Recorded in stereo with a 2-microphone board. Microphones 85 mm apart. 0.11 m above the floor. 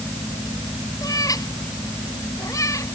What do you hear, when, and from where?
1.0 s a cat meowing: 45° left (ahead or behind); by 3.0 s 40° left (ahead or behind)